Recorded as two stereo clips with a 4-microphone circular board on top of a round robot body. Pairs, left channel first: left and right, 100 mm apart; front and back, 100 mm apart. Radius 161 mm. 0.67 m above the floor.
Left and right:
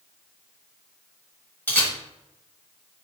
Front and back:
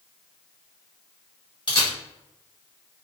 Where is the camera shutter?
25° left, 1.9 m.